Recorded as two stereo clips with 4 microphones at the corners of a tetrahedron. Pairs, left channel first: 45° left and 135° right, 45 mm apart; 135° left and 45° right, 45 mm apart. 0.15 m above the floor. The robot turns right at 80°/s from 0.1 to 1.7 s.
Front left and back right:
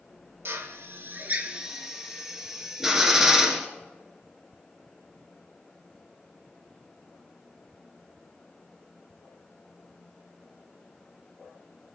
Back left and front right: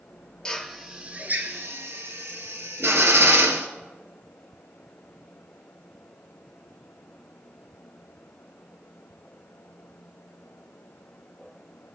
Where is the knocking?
No knocking in this recording.